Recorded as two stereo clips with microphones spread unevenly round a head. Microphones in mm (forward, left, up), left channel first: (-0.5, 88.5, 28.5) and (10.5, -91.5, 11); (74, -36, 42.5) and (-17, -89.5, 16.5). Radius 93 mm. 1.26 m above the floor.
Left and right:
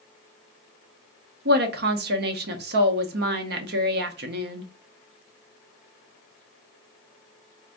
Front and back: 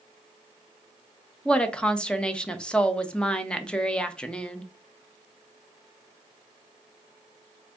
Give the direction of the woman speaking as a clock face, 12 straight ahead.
2 o'clock.